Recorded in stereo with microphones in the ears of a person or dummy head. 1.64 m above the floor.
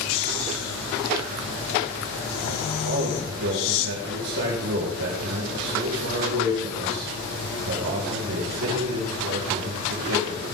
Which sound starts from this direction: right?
A man speaking, at 2.9 s.